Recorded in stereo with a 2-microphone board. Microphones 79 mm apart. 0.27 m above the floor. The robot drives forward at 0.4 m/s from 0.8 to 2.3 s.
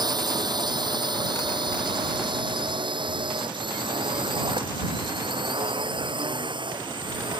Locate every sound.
0.0 s a drone: 60° right (ahead or behind); by 7.4 s 80° right